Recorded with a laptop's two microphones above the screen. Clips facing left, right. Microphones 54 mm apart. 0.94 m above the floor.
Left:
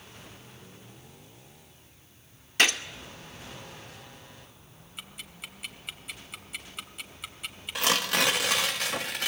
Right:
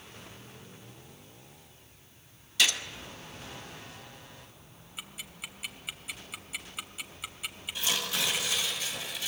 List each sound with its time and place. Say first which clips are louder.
2.6 s a gunshot: left 4 dB; 50° left (ahead or behind), 2 m
5.0 s ticking: even; centre (ahead or behind), 2.0 m
7.8 s tearing paper: left 7 dB; 65° left (ahead or behind), 2 m